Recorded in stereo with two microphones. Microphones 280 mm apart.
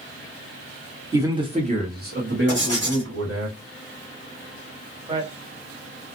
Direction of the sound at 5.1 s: 15° right (ahead or behind).